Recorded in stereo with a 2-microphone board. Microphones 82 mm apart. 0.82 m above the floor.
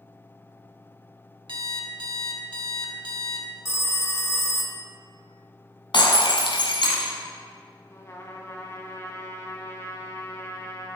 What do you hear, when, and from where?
1.5 s an alarm clock: 85° right, 1.1 m
3.6 s a phone ringing: 30° left (ahead or behind), 0.6 m
5.9 s breaking glass: 75° left (ahead or behind), 1.9 m
7.9 s a trumpet: 35° left (ahead or behind), 1.1 m